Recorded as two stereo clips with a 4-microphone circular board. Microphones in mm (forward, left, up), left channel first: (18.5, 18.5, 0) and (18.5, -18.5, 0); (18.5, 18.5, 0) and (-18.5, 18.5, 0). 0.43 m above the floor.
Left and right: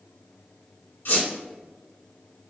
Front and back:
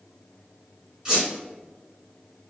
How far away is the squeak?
About 1.5 m.